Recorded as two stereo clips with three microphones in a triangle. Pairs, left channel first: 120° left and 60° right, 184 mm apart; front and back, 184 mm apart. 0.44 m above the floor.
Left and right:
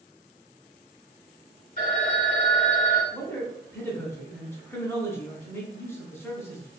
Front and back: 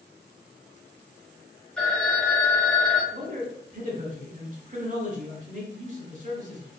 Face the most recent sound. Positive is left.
turn(degrees=-170)